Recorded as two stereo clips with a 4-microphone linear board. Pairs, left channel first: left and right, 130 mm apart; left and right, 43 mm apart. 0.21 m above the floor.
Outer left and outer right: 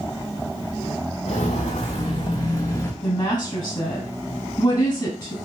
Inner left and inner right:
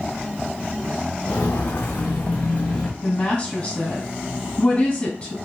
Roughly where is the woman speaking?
Left.